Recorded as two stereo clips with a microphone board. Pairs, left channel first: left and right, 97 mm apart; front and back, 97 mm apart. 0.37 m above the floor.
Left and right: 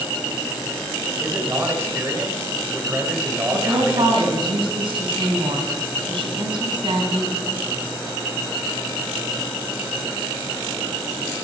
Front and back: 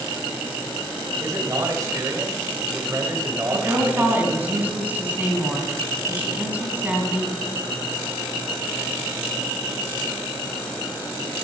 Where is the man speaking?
140° right, 1.6 m.